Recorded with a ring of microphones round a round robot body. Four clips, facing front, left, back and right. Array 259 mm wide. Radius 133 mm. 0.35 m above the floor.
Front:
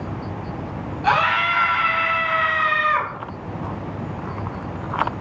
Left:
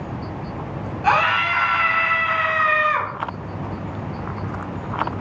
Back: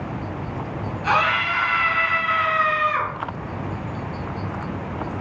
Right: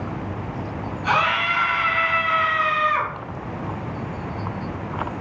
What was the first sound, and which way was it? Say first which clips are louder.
A scream: left 3 dB, front 2 dB; 55° left.